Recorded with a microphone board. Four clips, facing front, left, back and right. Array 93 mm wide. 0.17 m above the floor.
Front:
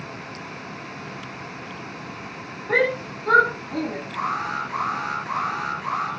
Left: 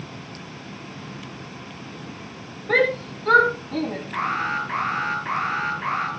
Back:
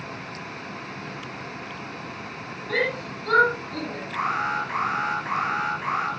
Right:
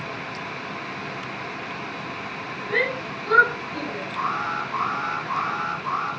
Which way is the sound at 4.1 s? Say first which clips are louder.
Left 1 dB, back 2 dB; 120° left.